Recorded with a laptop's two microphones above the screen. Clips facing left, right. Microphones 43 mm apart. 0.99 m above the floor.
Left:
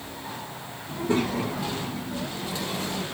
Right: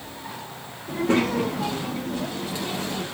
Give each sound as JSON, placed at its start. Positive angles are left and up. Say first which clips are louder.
{"t": 0.9, "sound": "a child speaking", "louder": "right 4 dB", "side_deg": -75, "distance_m": 1.4}